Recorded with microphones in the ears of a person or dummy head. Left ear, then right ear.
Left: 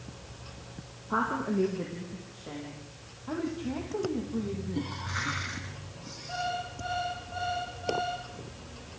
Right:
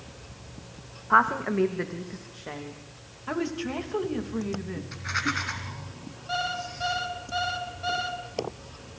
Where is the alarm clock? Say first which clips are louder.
Right 4 dB; 60° right (ahead or behind), 6 m.